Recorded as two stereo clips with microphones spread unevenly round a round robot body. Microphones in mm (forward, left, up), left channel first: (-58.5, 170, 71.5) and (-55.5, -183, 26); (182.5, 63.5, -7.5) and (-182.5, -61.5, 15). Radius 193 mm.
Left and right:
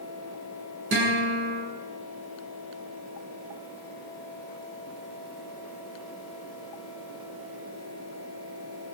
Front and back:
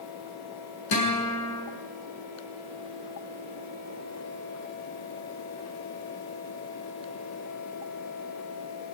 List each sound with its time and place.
0.9 s a guitar: 30° right, 8 m